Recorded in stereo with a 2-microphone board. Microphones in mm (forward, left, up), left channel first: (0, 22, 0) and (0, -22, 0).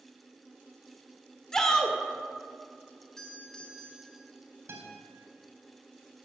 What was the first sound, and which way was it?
A shout, 15° left (ahead or behind).